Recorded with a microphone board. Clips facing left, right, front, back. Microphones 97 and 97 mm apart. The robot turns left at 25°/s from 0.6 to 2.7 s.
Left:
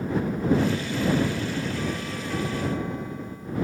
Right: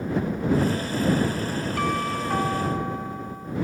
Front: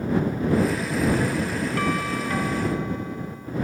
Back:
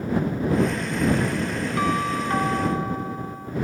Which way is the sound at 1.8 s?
110° right.